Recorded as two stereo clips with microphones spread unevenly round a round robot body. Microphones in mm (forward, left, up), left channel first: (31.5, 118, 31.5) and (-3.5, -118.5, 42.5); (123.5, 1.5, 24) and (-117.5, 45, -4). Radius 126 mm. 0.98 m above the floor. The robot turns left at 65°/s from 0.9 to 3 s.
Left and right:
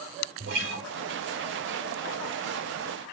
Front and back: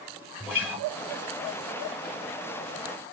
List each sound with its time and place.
0.4 s a guitar: 90° right, 0.9 m